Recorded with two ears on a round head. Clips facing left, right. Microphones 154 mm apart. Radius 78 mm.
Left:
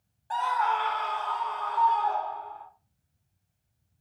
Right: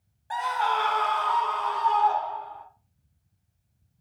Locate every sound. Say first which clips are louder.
0.3 s a scream: even; 10° right (ahead or behind), 0.5 m; by 2.6 s 80° right, 1.7 m